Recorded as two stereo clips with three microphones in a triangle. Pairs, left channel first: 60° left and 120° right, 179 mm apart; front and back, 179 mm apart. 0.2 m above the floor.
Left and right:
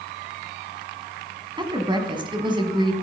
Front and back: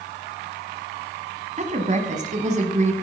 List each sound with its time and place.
1.6 s a woman speaking: 170° right, 1.4 m